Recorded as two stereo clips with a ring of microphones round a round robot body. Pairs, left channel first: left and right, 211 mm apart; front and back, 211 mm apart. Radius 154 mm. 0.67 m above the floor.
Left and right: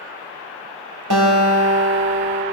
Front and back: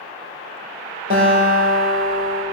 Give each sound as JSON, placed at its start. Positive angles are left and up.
{"t": 1.1, "sound": "a guitar", "azimuth_deg": -120, "distance_m": 3.0}